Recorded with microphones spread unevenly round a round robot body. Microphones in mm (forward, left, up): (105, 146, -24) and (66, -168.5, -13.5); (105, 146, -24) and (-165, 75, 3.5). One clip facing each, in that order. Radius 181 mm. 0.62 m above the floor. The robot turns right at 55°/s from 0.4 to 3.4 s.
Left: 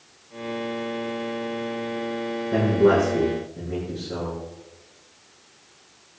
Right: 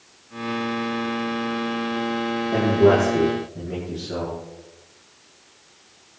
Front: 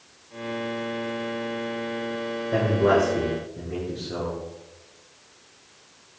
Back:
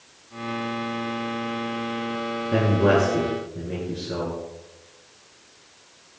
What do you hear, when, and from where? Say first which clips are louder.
2.5 s a man speaking: right 1 dB, back 1 dB; 155° left, 9.5 m; by 4.4 s 155° right, 9.5 m